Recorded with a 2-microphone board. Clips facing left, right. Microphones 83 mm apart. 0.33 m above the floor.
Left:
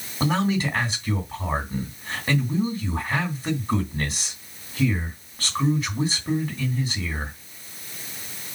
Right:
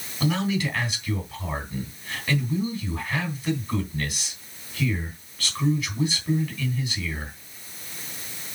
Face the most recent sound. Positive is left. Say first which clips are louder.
# left 2 dB
turn(degrees=35)  # may be behind; listen again after turning